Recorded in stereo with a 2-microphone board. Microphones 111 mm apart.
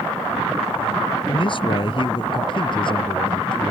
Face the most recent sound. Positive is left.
turn(degrees=45)  # may be behind; listen again after turning